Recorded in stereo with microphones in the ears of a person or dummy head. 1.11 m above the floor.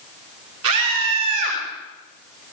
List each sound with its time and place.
0.6 s a scream: 75° right (ahead or behind), 5 m